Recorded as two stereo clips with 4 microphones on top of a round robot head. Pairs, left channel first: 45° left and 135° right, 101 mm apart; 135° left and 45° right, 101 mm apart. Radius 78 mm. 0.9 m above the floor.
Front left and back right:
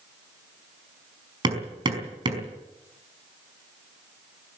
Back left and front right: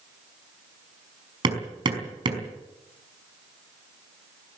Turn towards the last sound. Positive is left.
turn(degrees=-90)